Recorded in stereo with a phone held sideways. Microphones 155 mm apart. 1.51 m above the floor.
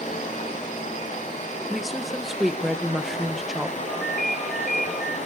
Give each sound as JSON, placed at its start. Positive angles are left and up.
{"t": 0.0, "sound": "running water", "side_deg": 45, "distance_m": 9.5}
{"t": 1.7, "sound": "a woman speaking", "side_deg": 0, "distance_m": 1.4}
{"t": 3.9, "sound": "a ringtone", "side_deg": 0, "distance_m": 6.5}